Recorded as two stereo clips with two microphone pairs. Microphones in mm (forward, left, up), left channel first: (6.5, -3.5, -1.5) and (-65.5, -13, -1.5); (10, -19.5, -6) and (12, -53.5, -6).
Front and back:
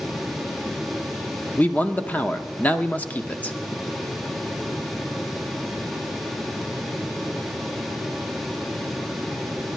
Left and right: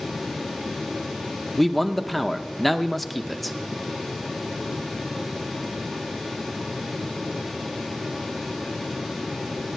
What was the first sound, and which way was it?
A man speaking, 5° left.